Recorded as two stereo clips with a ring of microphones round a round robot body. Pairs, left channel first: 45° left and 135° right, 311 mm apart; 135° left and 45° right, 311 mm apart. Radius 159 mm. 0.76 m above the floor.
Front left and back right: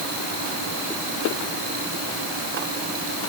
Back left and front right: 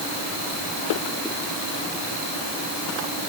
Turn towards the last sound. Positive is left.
No sound to turn to.